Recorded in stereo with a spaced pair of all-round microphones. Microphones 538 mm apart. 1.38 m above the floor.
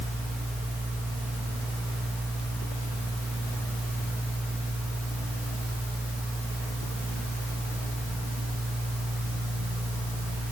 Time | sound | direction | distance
0.0 | a fan | centre (ahead or behind) | 4 m